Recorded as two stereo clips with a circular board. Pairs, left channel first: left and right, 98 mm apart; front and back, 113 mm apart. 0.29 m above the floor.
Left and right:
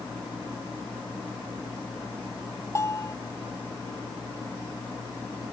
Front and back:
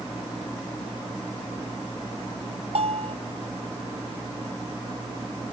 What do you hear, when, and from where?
2.8 s a bell: 150° left